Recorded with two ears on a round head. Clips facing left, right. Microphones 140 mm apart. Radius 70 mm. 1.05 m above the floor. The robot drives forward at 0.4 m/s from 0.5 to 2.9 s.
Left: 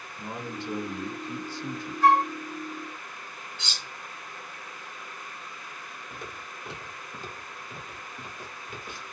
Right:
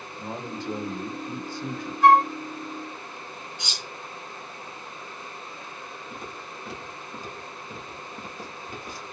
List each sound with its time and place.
0.2 s a man speaking: 35° right (ahead or behind), 1.5 m; by 1.9 s 55° right (ahead or behind), 1.1 m
2.0 s a flute: 5° right (ahead or behind), 1.8 m
3.6 s cutlery clinking: 15° right (ahead or behind), 0.9 m
6.1 s footsteps: 10° left (ahead or behind), 1.7 m; by 9.0 s 40° right (ahead or behind), 1.7 m